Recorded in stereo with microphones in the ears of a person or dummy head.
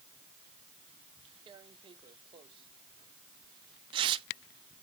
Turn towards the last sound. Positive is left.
turn(degrees=-30)  # may be behind; listen again after turning